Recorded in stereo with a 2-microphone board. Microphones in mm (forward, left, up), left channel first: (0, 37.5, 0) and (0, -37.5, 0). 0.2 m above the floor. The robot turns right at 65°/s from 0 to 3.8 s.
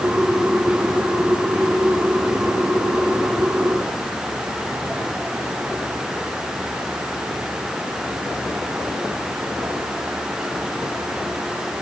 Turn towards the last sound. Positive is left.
No sound to turn to.